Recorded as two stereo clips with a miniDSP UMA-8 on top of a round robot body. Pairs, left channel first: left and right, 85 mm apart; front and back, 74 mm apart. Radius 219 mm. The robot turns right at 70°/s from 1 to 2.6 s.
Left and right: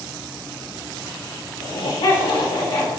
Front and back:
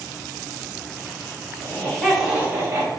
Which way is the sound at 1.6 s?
55° left.